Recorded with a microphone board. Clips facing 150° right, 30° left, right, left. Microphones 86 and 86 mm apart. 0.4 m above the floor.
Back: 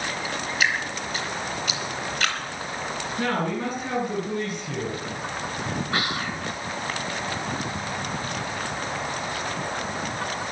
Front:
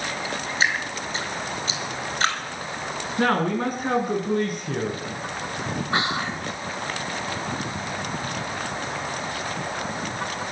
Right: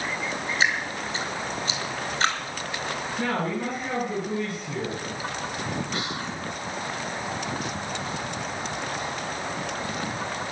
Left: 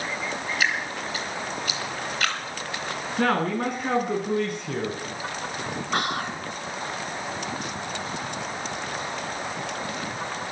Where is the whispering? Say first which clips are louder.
Front 5 dB, left 4 dB; 90° left, 1.9 m.